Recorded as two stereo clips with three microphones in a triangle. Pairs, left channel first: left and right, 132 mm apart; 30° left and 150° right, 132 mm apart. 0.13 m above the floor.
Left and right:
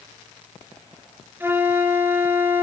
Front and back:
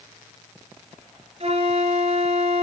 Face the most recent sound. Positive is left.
turn(degrees=-160)